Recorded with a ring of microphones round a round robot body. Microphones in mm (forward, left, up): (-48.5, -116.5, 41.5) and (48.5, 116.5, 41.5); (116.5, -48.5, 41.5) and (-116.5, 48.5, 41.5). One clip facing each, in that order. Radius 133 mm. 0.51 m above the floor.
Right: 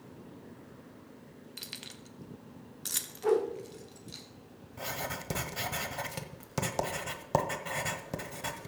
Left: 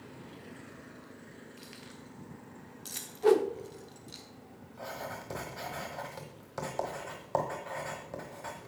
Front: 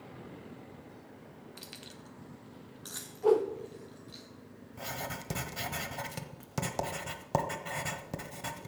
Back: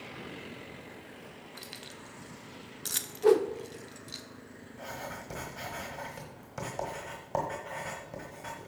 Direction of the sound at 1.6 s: 105° right.